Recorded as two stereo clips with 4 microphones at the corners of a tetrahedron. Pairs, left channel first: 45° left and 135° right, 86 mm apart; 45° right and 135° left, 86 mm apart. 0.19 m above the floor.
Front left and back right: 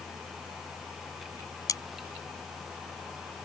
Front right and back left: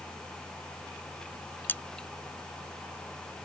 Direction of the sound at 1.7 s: 15° left.